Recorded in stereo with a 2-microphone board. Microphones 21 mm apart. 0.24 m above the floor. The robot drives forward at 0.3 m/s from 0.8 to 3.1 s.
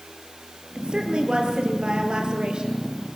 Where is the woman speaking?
55° right (ahead or behind), 5.5 m; by 3.2 s 50° right (ahead or behind), 5.5 m.